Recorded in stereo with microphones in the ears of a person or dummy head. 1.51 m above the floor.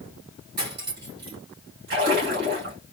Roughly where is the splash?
Right.